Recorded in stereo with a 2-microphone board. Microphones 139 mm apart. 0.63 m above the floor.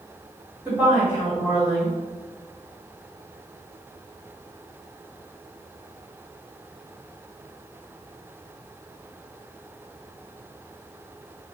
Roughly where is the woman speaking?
Centre.